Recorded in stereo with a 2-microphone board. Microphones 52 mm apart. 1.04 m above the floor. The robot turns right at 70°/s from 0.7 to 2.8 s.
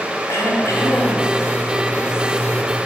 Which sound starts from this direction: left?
Throat clearing, at 0.3 s.